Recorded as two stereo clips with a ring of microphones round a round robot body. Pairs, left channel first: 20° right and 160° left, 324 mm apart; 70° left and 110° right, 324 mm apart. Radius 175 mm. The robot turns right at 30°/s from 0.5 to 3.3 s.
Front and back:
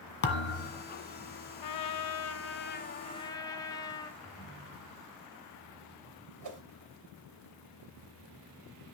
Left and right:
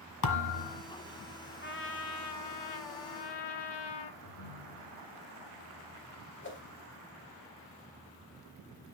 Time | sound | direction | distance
0.2 | a thud | 35° left | 1.8 m
1.6 | a trumpet | 5° left | 1.2 m
4.2 | a ringtone | 80° left | 4 m
6.4 | a whoosh | 125° left | 2 m